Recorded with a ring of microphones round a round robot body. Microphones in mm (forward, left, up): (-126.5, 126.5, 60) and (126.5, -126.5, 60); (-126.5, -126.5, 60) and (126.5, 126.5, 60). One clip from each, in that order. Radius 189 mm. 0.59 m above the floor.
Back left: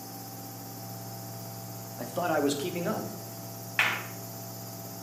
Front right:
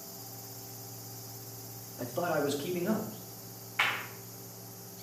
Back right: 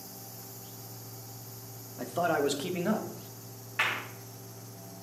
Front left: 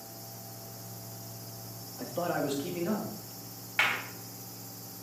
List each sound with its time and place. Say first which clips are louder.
2.0 s a man speaking: back left 3 dB, back right 4 dB; 175° right, 1.0 m; by 3.1 s 170° right, 1.6 m
3.8 s a clap: back left 3 dB, front left 2 dB; 105° left, 2.5 m